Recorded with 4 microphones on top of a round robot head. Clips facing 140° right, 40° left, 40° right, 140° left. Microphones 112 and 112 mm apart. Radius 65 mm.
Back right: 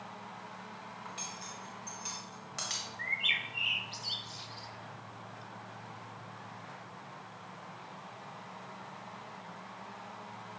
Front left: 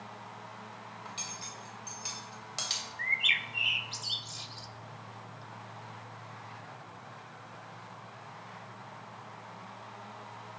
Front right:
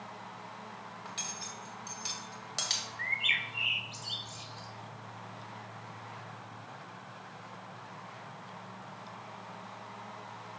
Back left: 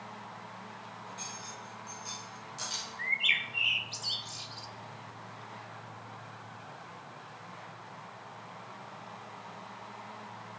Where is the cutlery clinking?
25° right, 2.5 m.